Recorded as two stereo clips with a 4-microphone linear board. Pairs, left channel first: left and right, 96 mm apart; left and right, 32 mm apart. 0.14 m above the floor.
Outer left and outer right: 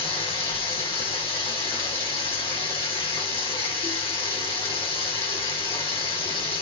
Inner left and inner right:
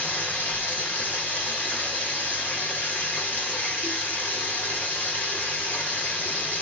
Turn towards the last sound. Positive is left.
turn(degrees=90)